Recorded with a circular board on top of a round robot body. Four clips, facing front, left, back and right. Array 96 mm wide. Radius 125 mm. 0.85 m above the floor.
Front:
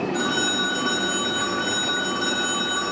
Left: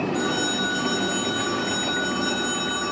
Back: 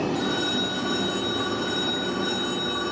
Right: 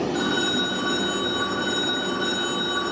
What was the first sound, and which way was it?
A phone ringing, 45° right.